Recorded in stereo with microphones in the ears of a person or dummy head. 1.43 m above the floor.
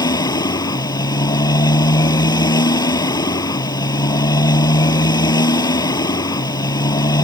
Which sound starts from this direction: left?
A motorcycle, at 0.0 s.